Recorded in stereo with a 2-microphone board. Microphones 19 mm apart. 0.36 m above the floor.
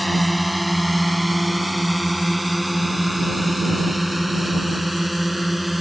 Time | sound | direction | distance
0.0 | a drone | 5° right (ahead or behind) | ?